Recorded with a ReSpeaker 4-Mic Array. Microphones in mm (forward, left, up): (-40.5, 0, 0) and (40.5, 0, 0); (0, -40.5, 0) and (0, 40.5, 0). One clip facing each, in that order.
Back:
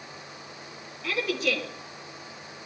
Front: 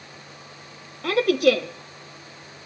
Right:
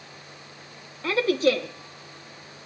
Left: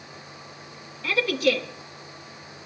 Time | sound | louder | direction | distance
1.0 | a woman speaking | front 10 dB, right 2 dB | 30° right | 1.2 m